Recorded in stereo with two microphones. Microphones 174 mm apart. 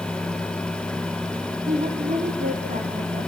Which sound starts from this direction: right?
A woman speaking, at 1.7 s.